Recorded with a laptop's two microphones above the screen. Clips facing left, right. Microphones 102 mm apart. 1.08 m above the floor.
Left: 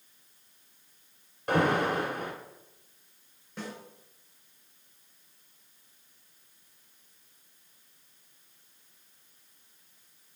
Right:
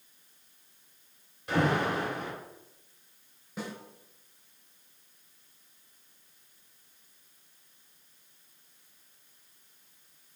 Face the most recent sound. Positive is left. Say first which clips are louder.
# right 1 dB
turn(degrees=-10)  # may be behind; listen again after turning